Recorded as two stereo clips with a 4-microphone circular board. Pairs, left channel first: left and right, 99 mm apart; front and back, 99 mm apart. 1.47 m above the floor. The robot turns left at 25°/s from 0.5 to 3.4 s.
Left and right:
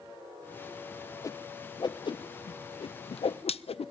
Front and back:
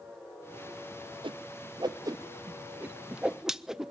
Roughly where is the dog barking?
I don't hear a dog barking.